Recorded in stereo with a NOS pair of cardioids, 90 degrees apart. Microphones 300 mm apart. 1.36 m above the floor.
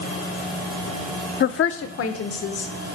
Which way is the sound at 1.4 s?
40° left.